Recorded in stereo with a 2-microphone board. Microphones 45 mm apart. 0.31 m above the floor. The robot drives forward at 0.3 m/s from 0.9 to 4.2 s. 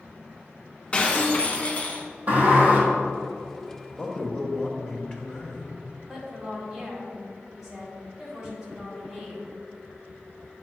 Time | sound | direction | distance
0.9 | breaking glass | 30° left (ahead or behind) | 1.1 m
2.3 | a sliding door | 40° right (ahead or behind) | 1.9 m
3.9 | a man speaking | 20° left (ahead or behind) | 1.4 m
6.1 | a woman speaking | 15° right (ahead or behind) | 1.9 m